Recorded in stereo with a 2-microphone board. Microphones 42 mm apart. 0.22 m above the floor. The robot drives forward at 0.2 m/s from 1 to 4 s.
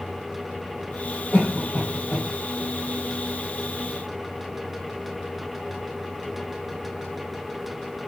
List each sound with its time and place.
1.3 s a cough: 40° left (ahead or behind), 3 m; by 2.3 s 35° left (ahead or behind), 3 m